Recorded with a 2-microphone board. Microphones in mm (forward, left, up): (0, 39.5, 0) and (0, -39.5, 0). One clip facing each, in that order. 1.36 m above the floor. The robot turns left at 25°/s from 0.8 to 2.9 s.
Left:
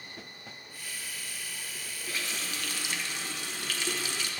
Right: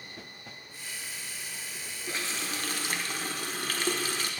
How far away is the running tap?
About 0.7 m.